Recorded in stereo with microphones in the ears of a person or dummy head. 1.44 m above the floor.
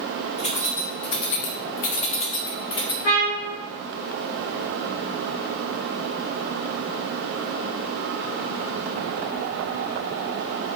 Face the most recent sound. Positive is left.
turn(degrees=40)  # may be behind; listen again after turning